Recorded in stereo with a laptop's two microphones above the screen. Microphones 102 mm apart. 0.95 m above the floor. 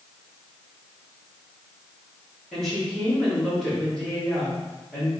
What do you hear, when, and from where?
2.5 s a woman speaking: 5° left (ahead or behind), 1.6 m